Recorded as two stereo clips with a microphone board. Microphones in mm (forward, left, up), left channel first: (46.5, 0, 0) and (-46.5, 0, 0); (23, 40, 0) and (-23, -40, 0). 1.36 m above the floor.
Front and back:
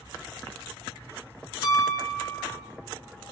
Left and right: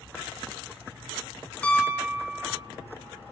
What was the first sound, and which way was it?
A piano, 10° right.